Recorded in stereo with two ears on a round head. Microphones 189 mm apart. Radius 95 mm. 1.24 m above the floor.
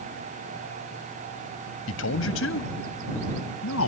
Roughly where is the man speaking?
Left.